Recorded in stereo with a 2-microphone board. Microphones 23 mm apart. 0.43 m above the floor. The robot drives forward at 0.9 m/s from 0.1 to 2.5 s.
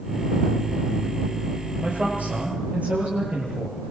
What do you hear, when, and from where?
1.8 s a man speaking: 70° right (ahead or behind), 9.5 m; by 3.8 s 75° right (ahead or behind), 9.5 m